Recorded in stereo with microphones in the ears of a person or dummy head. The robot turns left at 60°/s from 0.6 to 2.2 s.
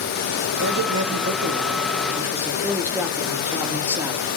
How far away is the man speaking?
About 1.0 m.